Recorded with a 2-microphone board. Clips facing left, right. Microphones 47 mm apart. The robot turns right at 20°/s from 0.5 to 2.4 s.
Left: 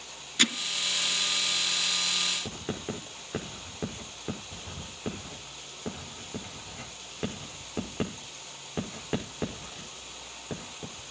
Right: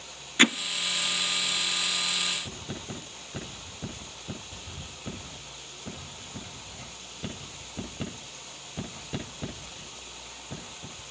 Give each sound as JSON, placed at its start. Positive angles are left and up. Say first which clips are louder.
{"t": 0.4, "sound": "hammering", "louder": "right 6 dB", "side_deg": -30, "distance_m": 0.7}
{"t": 2.5, "sound": "writing", "louder": "left 3 dB", "side_deg": 60, "distance_m": 5.5}